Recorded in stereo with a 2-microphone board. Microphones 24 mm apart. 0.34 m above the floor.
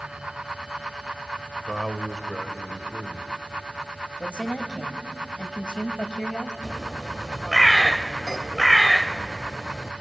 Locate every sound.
1.6 s a man speaking: 15° left (ahead or behind), 1.4 m
4.2 s a woman speaking: 45° left (ahead or behind), 1.5 m
6.6 s a bird: centre (ahead or behind), 0.5 m